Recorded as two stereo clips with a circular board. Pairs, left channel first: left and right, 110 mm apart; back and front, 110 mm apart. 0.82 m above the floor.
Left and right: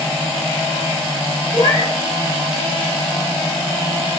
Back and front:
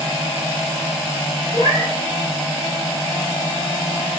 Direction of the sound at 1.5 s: 45° right.